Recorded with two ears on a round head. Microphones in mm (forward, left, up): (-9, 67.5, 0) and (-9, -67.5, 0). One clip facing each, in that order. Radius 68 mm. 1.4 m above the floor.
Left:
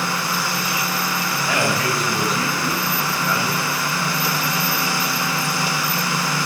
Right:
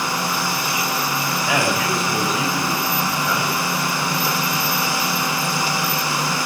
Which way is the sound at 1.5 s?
Centre (ahead or behind).